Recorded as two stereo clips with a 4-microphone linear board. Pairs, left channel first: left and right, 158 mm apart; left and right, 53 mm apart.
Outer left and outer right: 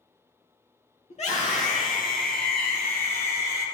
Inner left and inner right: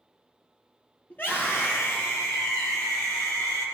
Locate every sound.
1.1 s a scream: 40° left (ahead or behind), 4.5 m; by 3.6 s 80° left, 5 m